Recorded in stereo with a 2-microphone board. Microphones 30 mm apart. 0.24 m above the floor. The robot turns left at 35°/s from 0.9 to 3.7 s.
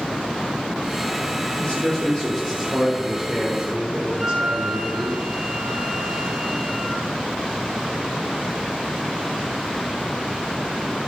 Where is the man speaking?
55° left, 5 m; by 5.1 s 20° right, 5 m.